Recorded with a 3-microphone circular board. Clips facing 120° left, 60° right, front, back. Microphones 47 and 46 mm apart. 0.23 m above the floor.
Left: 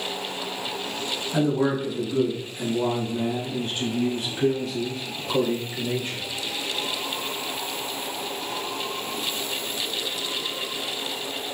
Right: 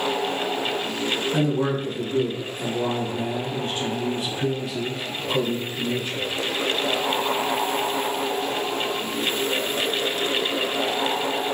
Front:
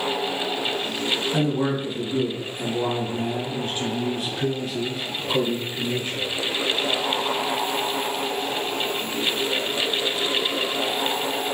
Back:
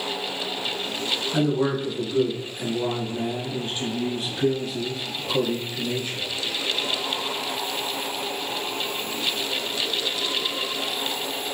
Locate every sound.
1.3 s a man speaking: 45° left, 1.4 m; by 6.2 s 70° left, 3.5 m